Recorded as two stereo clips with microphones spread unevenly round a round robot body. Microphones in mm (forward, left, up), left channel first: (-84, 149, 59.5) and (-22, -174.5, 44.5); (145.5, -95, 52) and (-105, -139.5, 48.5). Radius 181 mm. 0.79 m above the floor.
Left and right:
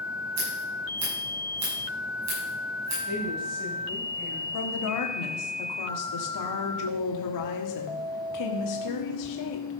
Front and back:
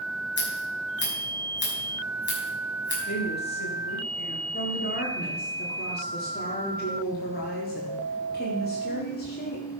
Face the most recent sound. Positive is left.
turn(degrees=70)